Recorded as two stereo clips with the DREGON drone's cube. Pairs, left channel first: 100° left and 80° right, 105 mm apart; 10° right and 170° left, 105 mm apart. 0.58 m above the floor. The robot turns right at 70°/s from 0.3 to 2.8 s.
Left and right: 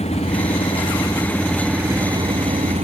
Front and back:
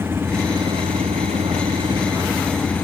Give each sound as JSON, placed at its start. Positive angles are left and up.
{"t": 0.0, "sound": "an engine running", "azimuth_deg": 100}